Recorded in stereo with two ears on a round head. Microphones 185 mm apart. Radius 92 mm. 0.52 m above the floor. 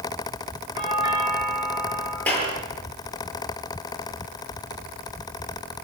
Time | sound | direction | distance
0.8 | a doorbell | 25° right (ahead or behind) | 8 m
2.3 | a clap | 10° left (ahead or behind) | 9 m